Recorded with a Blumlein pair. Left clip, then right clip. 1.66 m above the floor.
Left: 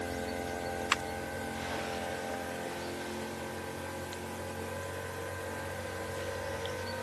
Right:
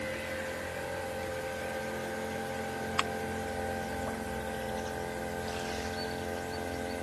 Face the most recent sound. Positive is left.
No sound to turn to.